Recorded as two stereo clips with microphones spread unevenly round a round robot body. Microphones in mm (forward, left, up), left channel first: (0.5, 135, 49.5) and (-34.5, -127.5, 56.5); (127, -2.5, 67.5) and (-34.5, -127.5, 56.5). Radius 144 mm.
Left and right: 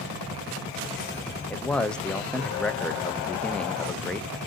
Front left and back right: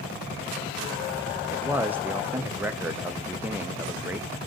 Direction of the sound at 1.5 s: 160° left.